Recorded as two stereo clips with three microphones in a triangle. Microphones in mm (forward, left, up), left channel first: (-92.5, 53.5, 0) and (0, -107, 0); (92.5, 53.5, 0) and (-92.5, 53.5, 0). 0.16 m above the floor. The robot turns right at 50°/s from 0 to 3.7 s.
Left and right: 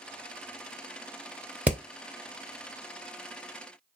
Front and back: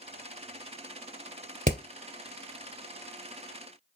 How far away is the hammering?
About 0.9 m.